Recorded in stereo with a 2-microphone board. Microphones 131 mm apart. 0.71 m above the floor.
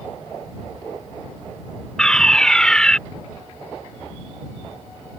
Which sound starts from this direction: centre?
A fire alarm, at 2.0 s.